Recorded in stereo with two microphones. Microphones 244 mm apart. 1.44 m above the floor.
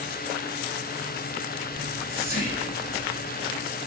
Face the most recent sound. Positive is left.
turn(degrees=-35)  # may be behind; listen again after turning